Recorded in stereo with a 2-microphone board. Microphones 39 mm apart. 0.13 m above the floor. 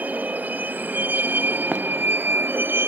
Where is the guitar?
I don't hear a guitar.